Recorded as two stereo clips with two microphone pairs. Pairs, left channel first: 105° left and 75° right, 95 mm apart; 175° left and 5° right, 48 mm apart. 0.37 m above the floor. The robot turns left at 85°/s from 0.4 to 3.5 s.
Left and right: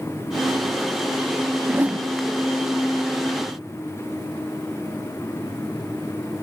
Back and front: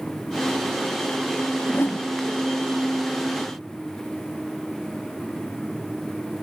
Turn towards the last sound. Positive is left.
turn(degrees=70)